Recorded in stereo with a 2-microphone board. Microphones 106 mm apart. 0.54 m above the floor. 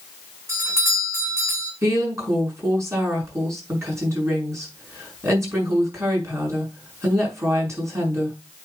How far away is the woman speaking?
About 5.5 m.